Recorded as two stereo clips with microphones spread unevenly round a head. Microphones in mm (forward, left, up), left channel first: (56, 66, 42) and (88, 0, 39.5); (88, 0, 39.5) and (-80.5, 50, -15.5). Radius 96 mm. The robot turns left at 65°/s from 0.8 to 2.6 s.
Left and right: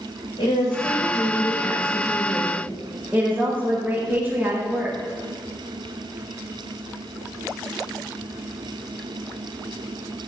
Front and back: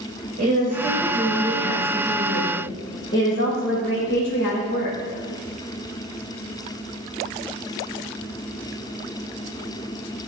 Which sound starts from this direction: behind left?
A woman speaking, at 0.4 s.